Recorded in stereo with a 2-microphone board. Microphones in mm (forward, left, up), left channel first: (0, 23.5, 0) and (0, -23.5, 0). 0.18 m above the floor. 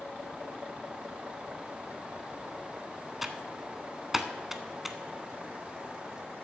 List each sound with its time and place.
3.2 s typing on a keyboard: 5° right (ahead or behind), 0.8 m